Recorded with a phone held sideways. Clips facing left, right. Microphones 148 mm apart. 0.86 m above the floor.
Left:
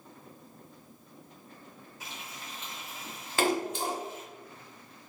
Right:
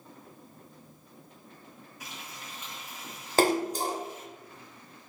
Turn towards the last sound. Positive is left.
turn(degrees=-40)  # may be behind; listen again after turning